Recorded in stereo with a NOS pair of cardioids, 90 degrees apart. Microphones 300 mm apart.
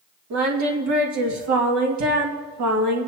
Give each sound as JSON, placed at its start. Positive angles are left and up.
{"t": 0.3, "sound": "singing", "azimuth_deg": -65, "distance_m": 1.9}